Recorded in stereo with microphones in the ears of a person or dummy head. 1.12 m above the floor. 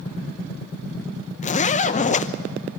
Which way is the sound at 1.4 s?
35° left (ahead or behind).